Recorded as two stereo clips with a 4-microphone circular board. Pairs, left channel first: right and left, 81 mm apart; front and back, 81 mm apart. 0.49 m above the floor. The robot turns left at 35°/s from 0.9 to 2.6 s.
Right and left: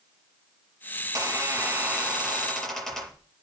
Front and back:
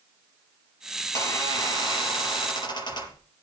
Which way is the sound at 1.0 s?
50° left.